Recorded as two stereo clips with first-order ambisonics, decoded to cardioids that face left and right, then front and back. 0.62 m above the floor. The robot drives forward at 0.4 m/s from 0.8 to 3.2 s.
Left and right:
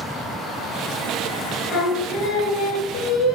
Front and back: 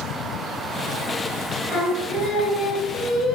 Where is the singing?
50° left, 1.2 m; by 3.4 s 80° left, 0.9 m.